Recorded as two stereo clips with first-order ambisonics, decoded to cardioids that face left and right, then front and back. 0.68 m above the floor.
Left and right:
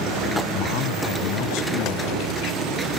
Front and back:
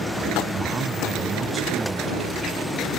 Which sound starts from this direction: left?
A man speaking, at 0.5 s.